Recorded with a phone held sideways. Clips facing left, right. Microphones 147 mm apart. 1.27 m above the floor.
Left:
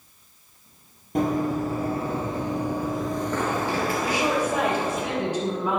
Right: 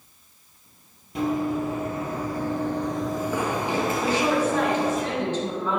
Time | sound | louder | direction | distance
1.1 | running footsteps | left 1 dB | 45° left (ahead or behind) | 1.8 m
4.0 | a woman speaking | right 3 dB | 10° left (ahead or behind) | 3 m